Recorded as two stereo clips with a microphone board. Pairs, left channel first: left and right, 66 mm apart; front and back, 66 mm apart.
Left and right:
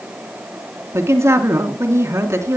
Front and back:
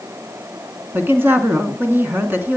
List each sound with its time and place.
0.9 s a woman speaking: 125° right, 2.5 m